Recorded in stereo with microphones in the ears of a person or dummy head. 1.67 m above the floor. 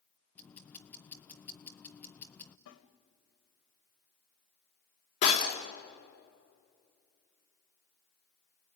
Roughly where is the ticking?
Centre.